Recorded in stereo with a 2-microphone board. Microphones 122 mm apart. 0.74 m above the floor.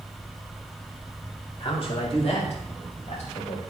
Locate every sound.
1.6 s a man speaking: 50° left (ahead or behind), 3 m; by 3.6 s 70° left (ahead or behind), 4.5 m